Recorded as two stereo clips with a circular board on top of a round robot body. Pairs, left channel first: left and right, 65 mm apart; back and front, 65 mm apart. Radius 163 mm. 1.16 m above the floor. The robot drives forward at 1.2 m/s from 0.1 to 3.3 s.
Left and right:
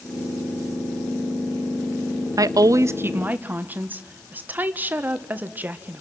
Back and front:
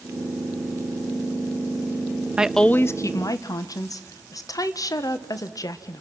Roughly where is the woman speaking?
Right.